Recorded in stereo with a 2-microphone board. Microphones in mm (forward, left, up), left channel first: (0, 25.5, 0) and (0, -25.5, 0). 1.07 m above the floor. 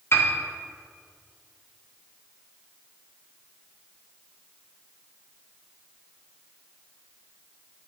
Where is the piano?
50° left (ahead or behind), 1.6 m.